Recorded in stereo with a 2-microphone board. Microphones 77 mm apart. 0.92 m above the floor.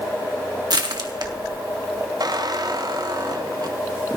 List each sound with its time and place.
0.7 s crushing: 65° right (ahead or behind), 1.4 m
2.2 s a squeak: 60° right (ahead or behind), 0.7 m